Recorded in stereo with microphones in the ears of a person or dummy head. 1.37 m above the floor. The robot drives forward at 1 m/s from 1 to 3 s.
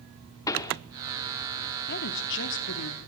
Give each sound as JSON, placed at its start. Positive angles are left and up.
{"t": 0.5, "sound": "a pop", "side_deg": 15, "distance_m": 1.1}
{"t": 1.9, "sound": "a woman speaking", "side_deg": 50, "distance_m": 3.0}